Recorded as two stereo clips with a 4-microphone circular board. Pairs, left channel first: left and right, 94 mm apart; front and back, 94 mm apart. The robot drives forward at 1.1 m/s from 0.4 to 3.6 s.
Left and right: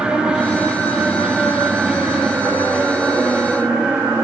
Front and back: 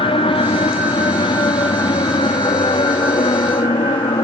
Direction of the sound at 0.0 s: 10° right.